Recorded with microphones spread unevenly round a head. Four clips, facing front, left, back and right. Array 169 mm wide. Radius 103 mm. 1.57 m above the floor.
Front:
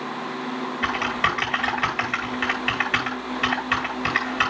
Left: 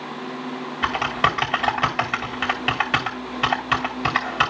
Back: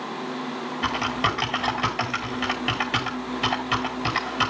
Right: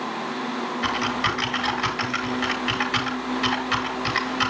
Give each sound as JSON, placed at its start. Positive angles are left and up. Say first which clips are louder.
{"t": 0.8, "sound": "typing on a keyboard", "louder": "left 5 dB, even", "azimuth_deg": 115, "distance_m": 2.5}